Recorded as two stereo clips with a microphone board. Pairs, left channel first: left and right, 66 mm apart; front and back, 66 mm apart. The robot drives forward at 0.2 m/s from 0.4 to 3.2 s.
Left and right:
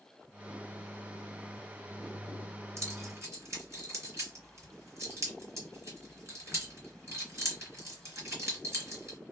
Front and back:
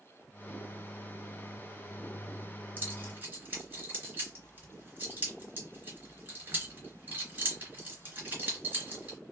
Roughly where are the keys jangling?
Behind right.